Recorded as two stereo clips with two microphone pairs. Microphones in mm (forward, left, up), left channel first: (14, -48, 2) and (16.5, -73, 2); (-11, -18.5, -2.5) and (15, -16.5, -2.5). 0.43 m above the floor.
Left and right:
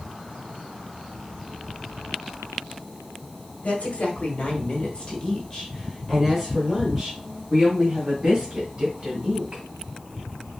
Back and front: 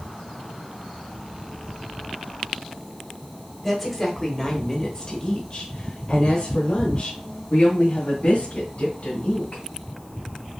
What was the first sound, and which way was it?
A woman speaking, 105° left.